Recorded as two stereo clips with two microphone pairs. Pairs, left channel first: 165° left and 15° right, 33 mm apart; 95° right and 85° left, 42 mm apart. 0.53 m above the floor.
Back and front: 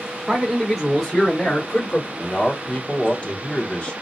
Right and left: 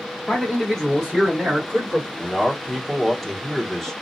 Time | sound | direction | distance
0.3 | a man speaking | 40° right | 1.2 m
2.2 | a man speaking | 175° left | 0.9 m